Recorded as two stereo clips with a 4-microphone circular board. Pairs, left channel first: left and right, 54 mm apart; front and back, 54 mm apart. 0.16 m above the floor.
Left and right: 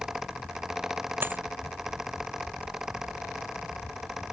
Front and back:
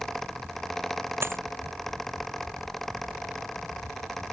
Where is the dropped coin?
140° right.